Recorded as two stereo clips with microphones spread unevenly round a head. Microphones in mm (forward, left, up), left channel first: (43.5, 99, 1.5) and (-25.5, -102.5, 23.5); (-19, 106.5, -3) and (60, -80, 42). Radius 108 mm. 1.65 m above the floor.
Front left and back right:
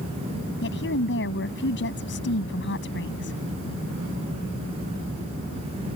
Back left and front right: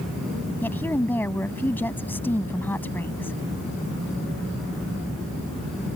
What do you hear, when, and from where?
0.6 s a woman speaking: 30° left